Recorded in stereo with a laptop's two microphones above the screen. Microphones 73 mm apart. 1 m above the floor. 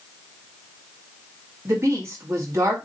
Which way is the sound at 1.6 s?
40° right (ahead or behind).